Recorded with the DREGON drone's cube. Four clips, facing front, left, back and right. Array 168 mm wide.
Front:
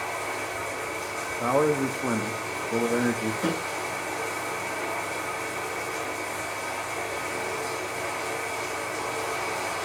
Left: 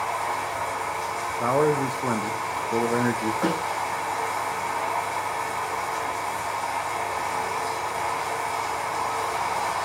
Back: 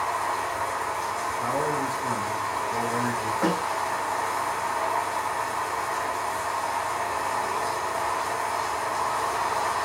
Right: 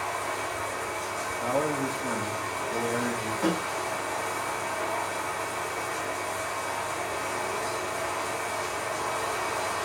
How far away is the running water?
About 2.5 m.